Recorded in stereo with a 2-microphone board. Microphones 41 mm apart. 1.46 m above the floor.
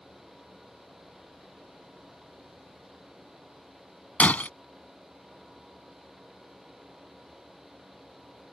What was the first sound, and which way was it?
Breaking glass, 40° left (ahead or behind).